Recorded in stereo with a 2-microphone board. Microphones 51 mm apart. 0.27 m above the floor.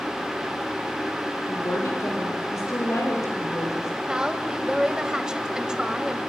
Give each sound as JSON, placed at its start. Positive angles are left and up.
{"t": 1.5, "sound": "a woman speaking", "side_deg": 65, "distance_m": 8.0}
{"t": 4.1, "sound": "a woman speaking", "side_deg": -15, "distance_m": 1.4}